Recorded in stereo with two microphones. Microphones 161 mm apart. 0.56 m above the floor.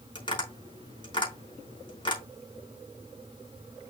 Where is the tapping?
30° left (ahead or behind), 4.5 m.